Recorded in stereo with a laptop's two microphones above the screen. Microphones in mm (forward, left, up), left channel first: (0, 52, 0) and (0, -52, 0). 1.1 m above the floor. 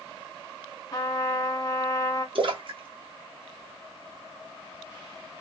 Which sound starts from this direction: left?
A trumpet, at 0.9 s.